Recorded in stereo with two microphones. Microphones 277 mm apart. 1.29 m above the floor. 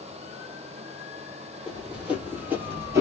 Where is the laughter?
I don't hear laughter.